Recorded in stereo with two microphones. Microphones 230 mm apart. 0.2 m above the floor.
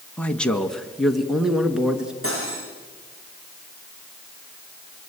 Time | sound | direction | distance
0.2 | a man speaking | 5° left (ahead or behind) | 1.4 m
2.2 | cutlery clinking | 70° right (ahead or behind) | 9 m